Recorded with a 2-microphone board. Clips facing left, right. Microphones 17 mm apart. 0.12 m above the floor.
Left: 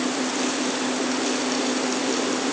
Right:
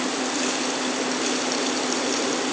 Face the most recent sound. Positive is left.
No sound to turn to.